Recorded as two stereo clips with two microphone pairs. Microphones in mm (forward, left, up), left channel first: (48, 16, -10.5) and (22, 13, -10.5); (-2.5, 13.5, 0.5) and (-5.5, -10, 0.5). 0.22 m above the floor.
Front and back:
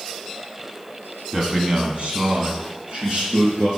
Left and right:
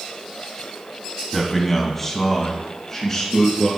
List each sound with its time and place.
1.3 s a man speaking: 175° left, 1.3 m; by 3.7 s 155° left, 3 m